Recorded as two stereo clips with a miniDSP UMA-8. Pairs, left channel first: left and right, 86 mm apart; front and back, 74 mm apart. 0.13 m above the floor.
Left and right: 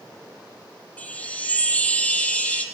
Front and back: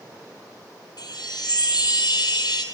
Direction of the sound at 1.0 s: 15° left.